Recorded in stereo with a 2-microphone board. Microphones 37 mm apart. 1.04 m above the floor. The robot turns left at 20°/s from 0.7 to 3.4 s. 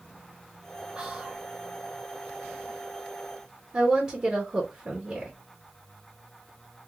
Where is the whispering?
25° right (ahead or behind), 0.9 m; by 1.4 s 15° right (ahead or behind), 0.9 m.